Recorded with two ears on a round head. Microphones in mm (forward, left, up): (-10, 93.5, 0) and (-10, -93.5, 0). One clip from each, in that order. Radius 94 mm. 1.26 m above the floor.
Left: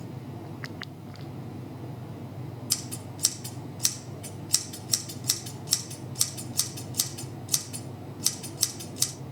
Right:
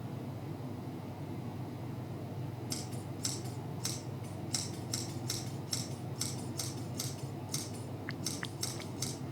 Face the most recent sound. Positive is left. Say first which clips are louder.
# left 11 dB
turn(degrees=85)